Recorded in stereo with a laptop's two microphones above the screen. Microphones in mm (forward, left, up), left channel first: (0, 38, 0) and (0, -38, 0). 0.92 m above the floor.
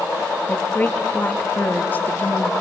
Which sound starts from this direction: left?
A woman speaking, at 0.5 s.